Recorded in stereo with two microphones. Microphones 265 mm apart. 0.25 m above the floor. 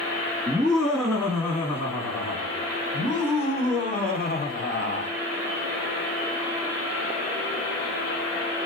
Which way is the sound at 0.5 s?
Centre (ahead or behind).